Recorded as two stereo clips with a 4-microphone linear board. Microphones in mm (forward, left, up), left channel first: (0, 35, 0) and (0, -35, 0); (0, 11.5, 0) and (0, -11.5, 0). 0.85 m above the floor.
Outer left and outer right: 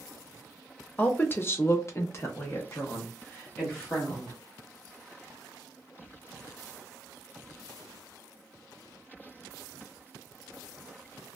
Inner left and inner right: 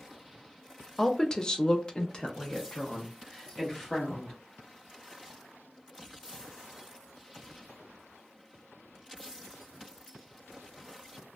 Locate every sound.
1.0 s a woman speaking: 20° left (ahead or behind), 0.6 m; by 4.3 s 25° left (ahead or behind), 1.6 m